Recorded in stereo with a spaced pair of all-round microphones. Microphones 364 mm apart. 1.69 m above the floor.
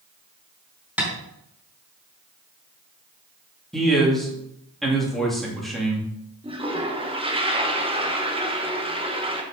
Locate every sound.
1.0 s tapping: 5° right (ahead or behind), 4 m
3.7 s a man speaking: centre (ahead or behind), 2.5 m
6.4 s a toilet flushing: 15° right (ahead or behind), 1.2 m